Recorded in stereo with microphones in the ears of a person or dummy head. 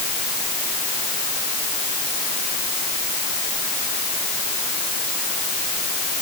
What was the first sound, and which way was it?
Only background noise.